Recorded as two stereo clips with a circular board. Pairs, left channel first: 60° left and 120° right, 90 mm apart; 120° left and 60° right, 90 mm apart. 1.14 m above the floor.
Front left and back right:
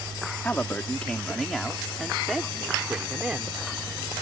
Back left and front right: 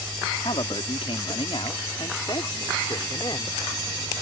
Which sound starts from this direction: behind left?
A man speaking, at 0.4 s.